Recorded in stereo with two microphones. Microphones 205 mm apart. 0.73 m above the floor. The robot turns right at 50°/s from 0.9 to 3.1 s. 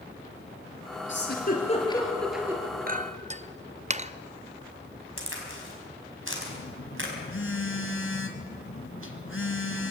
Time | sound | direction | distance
1.1 | a giggle | 60° left (ahead or behind) | 3.5 m
2.9 | a clink | 40° right (ahead or behind) | 0.5 m
5.2 | a crack | 70° right (ahead or behind) | 5 m
6.5 | a phone buzzing | 70° left (ahead or behind) | 1.6 m